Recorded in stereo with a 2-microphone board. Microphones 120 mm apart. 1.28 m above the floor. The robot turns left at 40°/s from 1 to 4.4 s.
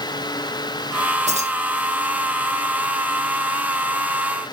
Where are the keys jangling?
80° right, 0.8 m; by 1.5 s 70° right (ahead or behind), 0.8 m.